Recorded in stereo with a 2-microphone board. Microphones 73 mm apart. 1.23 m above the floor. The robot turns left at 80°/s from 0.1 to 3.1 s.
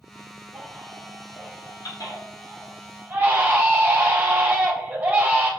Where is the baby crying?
Centre (ahead or behind), 3.5 m; by 5.5 s 25° right (ahead or behind), 3.5 m.